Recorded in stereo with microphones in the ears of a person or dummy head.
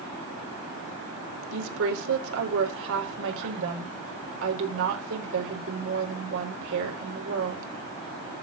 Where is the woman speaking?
75° right (ahead or behind), 4 m.